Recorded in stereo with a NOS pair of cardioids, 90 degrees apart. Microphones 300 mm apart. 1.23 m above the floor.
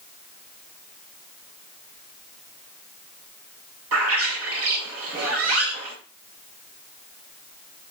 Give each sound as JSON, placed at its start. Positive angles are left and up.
{"t": 3.9, "sound": "a bird", "azimuth_deg": -55, "distance_m": 1.1}